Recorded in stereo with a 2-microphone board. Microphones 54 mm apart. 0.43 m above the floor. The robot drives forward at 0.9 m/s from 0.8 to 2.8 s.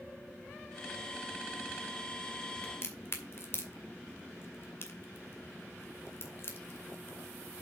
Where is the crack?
50° left (ahead or behind), 2 m.